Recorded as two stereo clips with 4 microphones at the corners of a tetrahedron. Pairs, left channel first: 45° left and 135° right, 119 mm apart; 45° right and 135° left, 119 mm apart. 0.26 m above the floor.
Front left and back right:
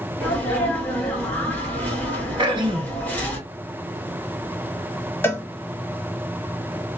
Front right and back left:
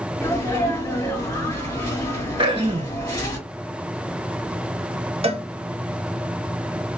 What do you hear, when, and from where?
0.2 s a sneeze: 10° right, 1.7 m
2.4 s throat clearing: 175° left, 0.6 m
5.2 s a cowbell: 115° left, 0.6 m